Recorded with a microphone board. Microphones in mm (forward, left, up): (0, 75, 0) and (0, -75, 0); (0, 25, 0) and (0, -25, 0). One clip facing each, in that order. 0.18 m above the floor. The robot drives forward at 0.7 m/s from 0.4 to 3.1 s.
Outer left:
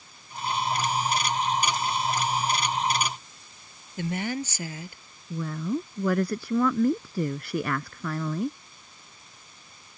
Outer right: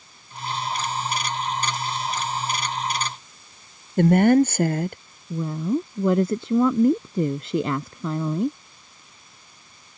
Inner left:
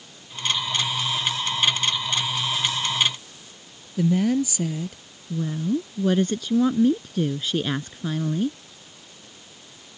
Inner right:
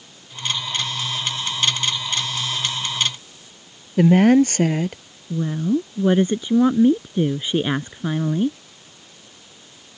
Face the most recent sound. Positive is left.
turn(degrees=-25)  # may be behind; listen again after turning